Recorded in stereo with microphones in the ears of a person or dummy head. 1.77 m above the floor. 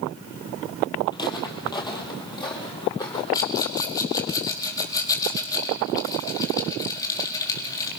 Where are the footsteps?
20° left (ahead or behind), 3.5 m.